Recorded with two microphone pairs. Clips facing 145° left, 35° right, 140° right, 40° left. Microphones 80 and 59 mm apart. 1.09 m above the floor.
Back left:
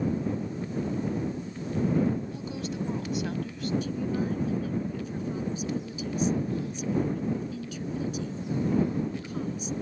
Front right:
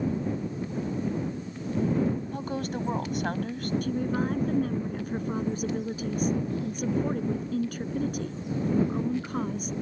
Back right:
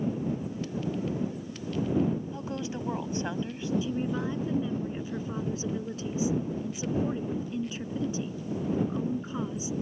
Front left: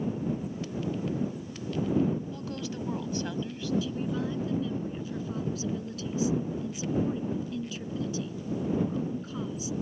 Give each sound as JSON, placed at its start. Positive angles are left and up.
{"t": 2.3, "sound": "a woman speaking", "azimuth_deg": -75}
{"t": 3.8, "sound": "a woman speaking", "azimuth_deg": -75}